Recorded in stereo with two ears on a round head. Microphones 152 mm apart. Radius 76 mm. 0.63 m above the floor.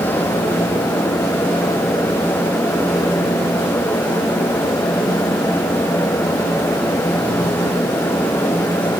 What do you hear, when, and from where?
Only background noise.